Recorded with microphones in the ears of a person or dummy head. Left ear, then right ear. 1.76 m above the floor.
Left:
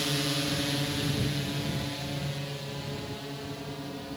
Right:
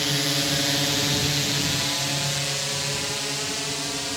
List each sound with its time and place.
0.0 s a drone: 15° right (ahead or behind); by 4.2 s 65° right (ahead or behind)